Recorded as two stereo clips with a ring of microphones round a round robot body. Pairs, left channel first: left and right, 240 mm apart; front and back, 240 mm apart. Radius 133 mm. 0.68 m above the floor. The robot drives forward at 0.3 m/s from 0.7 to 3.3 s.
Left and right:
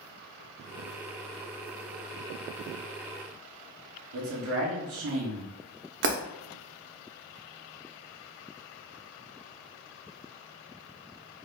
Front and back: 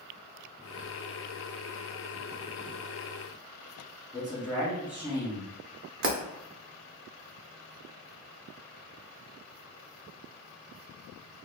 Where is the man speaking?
95° right, 1.3 m.